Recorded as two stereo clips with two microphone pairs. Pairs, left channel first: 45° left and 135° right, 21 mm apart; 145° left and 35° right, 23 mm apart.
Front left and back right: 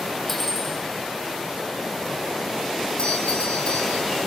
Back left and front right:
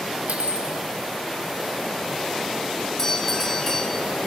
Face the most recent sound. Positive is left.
turn(degrees=75)